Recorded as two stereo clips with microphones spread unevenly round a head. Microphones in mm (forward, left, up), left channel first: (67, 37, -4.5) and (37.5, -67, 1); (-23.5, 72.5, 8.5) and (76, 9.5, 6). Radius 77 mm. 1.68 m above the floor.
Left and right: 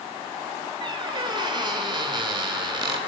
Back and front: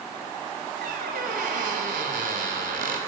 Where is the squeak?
60° right, 4 m.